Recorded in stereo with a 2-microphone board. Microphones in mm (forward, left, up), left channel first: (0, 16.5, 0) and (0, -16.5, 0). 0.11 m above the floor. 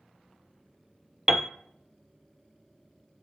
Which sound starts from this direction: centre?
A piano, at 1.3 s.